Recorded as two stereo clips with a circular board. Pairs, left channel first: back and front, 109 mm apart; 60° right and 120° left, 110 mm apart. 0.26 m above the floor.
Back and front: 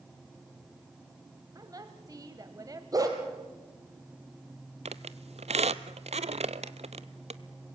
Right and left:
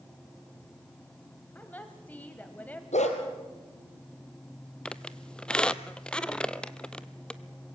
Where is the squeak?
20° left, 0.6 m.